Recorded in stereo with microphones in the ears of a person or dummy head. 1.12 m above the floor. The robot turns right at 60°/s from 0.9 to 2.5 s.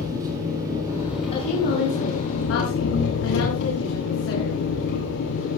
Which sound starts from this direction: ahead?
An engine running, at 0.0 s.